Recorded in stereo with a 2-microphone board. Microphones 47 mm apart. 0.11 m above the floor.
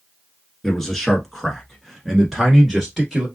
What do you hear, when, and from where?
0.6 s a man speaking: 10° left (ahead or behind), 1.2 m; by 3.3 s 5° right (ahead or behind), 1.5 m